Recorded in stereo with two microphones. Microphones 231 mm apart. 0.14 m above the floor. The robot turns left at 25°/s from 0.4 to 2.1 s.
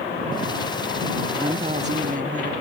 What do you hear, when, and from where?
1.4 s a woman speaking: 20° right (ahead or behind); by 2.5 s 35° right (ahead or behind)